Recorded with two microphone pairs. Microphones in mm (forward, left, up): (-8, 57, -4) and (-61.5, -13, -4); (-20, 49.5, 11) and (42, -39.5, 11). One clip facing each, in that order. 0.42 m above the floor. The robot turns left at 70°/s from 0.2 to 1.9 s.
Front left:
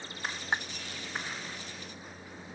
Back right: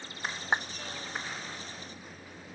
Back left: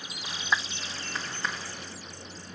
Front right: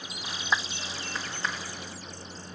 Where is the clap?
120° right; by 0.7 s 130° right.